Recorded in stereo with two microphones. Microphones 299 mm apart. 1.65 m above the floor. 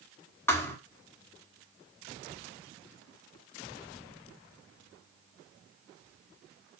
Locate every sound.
0.5 s a thud: 10° left (ahead or behind), 1.4 m